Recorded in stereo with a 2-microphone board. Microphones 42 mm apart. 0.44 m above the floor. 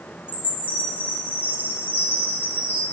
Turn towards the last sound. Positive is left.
turn(degrees=50)  # may be behind; listen again after turning